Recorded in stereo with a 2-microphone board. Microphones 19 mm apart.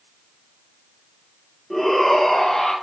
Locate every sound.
1.7 s a shout: 10° left (ahead or behind), 5 m; by 2.7 s 25° left (ahead or behind), 5 m